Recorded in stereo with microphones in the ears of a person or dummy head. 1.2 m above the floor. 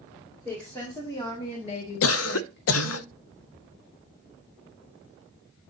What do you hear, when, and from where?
0.5 s a woman speaking: 15° left (ahead or behind), 2.5 m; by 3.0 s 85° left, 1.6 m
2.0 s a cough: 85° left, 0.5 m